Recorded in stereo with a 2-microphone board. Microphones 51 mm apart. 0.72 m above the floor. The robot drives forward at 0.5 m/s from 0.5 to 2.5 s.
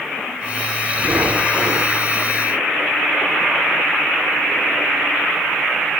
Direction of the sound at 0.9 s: 75° right (ahead or behind).